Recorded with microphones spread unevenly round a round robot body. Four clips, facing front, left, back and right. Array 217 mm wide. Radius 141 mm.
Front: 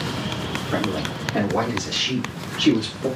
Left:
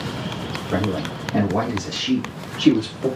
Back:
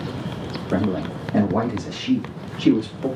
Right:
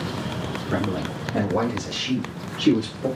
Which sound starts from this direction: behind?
A man speaking, at 0.7 s.